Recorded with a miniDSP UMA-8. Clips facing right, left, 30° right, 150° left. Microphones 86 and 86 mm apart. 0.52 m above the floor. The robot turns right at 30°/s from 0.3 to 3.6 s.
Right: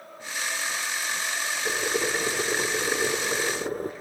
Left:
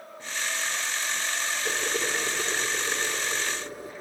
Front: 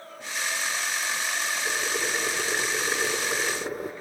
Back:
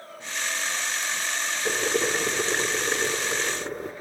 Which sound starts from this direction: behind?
Boiling, at 1.6 s.